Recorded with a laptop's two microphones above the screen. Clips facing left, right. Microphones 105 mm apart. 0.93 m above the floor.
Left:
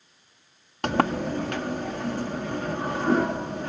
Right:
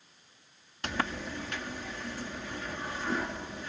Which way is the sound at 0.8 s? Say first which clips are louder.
Left 10 dB; 60° left (ahead or behind).